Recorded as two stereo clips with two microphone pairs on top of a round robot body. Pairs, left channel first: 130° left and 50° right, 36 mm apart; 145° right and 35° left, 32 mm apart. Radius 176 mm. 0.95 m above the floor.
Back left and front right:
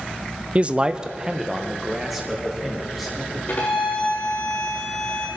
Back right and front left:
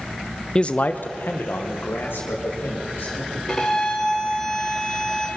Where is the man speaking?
60° right, 0.6 m; by 3.4 s 135° right, 2.5 m.